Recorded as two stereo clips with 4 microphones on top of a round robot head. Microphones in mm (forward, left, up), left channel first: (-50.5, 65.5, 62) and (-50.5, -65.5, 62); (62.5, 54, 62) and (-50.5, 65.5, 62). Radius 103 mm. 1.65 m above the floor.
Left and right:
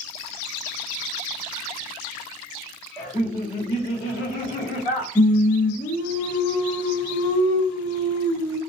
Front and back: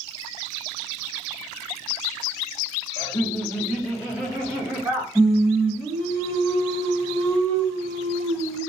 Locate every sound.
3.0 s laughter: 20° left, 0.5 m; by 5.0 s 95° left, 1.4 m
5.2 s singing: 75° left, 1.5 m